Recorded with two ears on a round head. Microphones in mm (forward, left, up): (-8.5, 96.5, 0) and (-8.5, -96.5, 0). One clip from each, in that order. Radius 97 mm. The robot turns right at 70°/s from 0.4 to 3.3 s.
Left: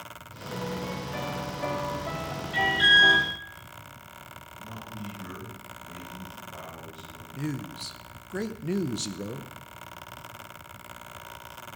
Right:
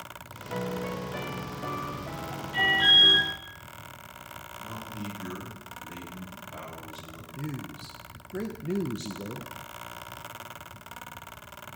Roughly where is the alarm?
Behind left.